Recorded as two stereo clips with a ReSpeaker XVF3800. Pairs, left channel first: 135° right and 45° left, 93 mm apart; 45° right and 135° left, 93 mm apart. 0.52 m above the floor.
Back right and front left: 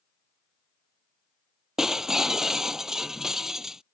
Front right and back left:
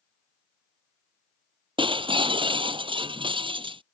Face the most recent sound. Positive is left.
turn(degrees=130)